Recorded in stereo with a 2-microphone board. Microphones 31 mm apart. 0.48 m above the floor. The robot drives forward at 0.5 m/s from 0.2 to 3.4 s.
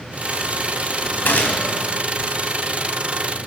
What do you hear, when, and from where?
1.2 s a gunshot: 75° left (ahead or behind), 0.8 m; by 1.7 s 60° left (ahead or behind), 0.9 m